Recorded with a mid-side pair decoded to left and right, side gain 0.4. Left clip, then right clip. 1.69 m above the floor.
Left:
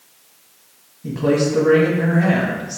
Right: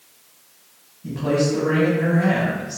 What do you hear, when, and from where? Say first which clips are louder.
1.0 s a man speaking: left 3 dB; 45° left, 1.0 m